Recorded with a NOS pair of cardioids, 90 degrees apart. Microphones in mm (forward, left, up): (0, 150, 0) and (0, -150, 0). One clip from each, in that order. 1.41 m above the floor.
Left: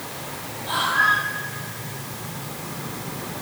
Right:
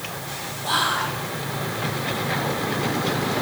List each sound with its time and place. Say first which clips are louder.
0.6 s whispering: left 3 dB; 70° right, 3 m